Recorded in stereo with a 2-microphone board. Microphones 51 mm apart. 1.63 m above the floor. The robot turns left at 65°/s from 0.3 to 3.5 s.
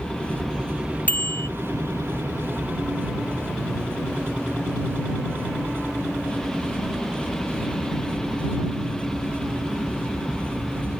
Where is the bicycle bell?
35° left (ahead or behind); by 1.5 s 65° left (ahead or behind).